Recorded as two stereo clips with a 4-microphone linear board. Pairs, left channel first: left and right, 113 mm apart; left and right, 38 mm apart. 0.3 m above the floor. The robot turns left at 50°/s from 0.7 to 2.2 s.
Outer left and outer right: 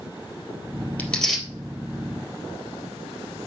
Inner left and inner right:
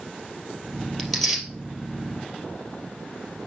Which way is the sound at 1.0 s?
15° left (ahead or behind).